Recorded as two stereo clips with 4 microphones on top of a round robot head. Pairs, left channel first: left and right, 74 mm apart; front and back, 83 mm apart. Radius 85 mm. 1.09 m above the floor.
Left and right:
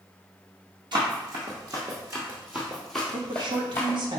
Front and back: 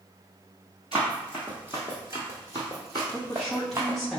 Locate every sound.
0.9 s running footsteps: 100° right, 1.5 m; by 4.0 s 135° left, 1.3 m
3.1 s a woman speaking: 90° right, 1.2 m